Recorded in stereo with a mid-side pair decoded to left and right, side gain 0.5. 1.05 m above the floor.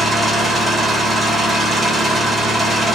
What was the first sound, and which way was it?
An engine running, straight ahead.